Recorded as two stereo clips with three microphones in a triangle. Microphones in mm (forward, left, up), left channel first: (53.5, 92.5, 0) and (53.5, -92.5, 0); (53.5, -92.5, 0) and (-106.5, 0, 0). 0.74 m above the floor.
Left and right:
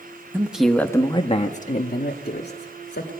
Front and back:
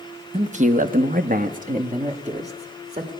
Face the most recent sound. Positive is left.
turn(degrees=95)